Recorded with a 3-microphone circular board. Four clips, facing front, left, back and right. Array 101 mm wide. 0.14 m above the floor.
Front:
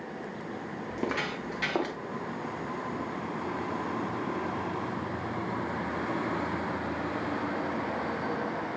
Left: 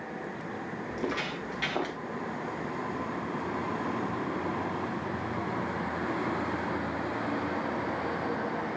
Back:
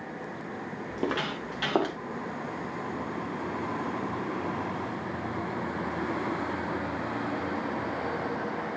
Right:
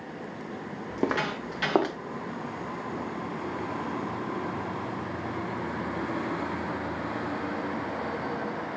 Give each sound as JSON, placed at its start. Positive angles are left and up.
{"t": 0.9, "sound": "footsteps", "azimuth_deg": -90, "distance_m": 2.0}